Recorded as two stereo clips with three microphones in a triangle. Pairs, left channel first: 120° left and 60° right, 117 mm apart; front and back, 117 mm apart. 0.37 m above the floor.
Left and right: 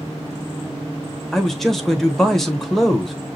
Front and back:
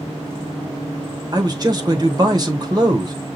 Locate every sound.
1.3 s a man speaking: 155° right, 1.0 m